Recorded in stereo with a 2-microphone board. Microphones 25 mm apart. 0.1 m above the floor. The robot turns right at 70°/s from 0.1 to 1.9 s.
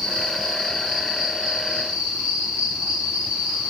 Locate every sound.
0.0 s an insect: 115° left, 3.5 m; by 3.7 s 115° right, 3.5 m